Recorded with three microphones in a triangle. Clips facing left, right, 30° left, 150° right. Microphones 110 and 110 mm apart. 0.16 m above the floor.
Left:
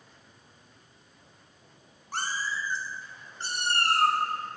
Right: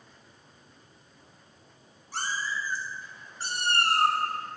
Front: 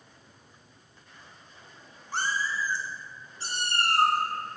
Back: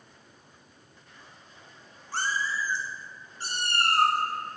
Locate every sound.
2.1 s a cat meowing: 95° left, 1.1 m; by 4.2 s 155° right, 1.8 m